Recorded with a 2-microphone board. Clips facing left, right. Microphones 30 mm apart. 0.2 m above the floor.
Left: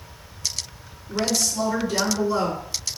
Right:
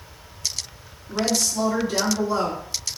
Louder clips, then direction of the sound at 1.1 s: Right 1 dB; 30° right (ahead or behind).